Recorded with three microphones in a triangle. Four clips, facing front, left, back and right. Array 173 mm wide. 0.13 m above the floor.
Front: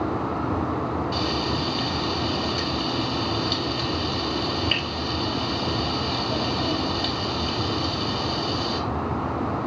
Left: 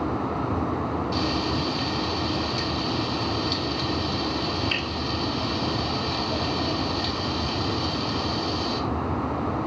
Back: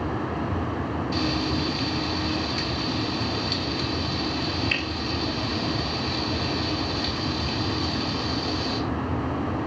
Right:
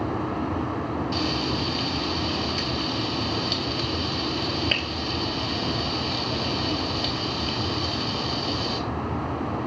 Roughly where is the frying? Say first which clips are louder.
Left 1 dB, even; ahead right.